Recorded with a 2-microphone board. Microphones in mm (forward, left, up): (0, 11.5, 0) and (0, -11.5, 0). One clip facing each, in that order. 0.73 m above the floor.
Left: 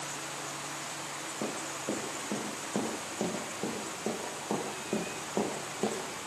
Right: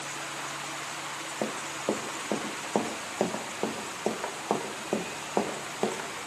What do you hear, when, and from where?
1.4 s running footsteps: 80° right, 3.5 m; by 6.1 s 40° right (ahead or behind), 3.5 m